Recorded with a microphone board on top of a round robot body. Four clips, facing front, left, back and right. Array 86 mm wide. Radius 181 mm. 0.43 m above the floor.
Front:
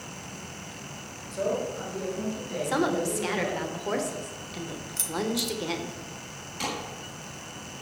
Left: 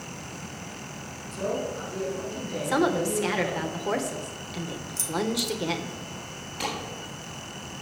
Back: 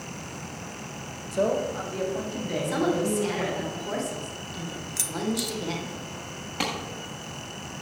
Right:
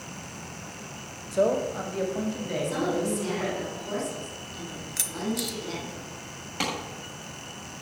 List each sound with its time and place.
1.3 s a man speaking: 115° right, 2.5 m; by 3.6 s 140° right, 5.5 m
2.6 s a woman speaking: 65° left, 2.5 m
5.0 s keys jangling: 105° right, 1.2 m
6.6 s a clap: 135° right, 7 m